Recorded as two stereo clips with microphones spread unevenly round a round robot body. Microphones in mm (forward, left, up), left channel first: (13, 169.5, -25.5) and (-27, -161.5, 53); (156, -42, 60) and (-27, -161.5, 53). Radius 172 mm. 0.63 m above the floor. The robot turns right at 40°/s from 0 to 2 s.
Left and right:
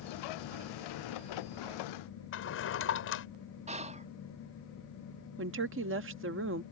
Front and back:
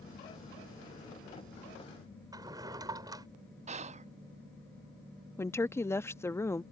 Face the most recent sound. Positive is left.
turn(degrees=-45)